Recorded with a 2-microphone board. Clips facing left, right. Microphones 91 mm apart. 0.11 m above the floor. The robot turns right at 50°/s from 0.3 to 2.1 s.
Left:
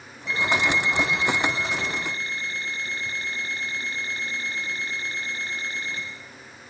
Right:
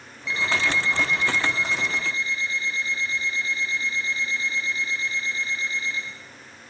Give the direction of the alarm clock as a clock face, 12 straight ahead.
11 o'clock.